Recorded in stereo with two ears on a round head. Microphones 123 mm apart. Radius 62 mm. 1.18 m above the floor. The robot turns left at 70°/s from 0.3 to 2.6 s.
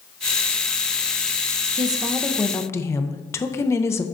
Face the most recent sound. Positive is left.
turn(degrees=160)